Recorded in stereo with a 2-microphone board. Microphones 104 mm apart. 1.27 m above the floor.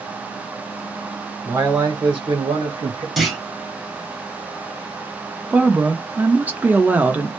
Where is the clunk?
5° right (ahead or behind), 0.8 m.